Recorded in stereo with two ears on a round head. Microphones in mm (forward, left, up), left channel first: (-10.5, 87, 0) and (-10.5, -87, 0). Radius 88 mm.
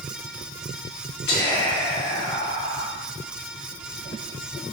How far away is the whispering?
About 1.3 m.